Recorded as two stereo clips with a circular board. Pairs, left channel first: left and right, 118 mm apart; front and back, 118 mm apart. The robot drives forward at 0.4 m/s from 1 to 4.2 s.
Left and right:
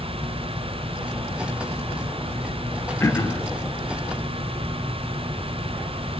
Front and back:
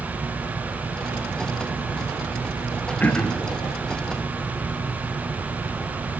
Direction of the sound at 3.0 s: 55° left.